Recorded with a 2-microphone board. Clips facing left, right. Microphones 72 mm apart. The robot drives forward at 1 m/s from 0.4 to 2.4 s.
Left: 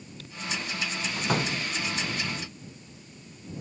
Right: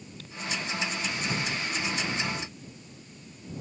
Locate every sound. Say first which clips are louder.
1.2 s a door slam: left 7 dB; 60° left (ahead or behind); by 1.7 s 55° left (ahead or behind)